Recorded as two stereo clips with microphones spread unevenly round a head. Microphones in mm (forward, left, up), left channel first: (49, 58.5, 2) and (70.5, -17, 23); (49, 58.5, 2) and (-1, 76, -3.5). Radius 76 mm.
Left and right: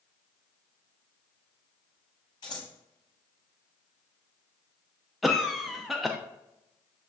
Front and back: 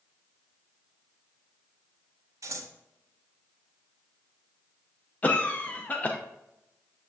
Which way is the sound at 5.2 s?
35° left.